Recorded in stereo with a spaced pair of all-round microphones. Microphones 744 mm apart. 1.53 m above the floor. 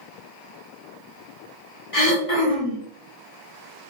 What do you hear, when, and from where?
1.9 s throat clearing: 45° left (ahead or behind), 1.3 m